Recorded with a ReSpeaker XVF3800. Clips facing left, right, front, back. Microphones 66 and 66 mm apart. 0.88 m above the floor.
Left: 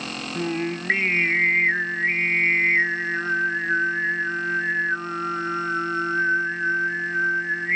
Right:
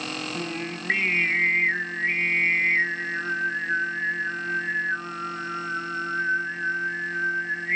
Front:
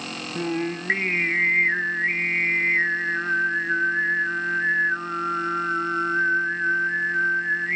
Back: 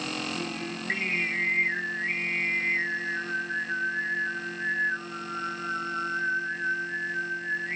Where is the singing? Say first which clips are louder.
Left 5 dB, front 8 dB; 25° left, 0.6 m.